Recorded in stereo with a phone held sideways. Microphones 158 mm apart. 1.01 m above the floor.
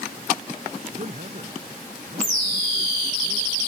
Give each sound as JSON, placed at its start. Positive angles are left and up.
{"t": 0.9, "sound": "a man speaking", "side_deg": -50}